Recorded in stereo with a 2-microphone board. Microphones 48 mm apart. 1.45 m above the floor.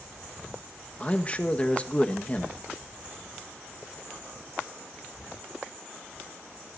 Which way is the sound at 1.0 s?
25° left (ahead or behind).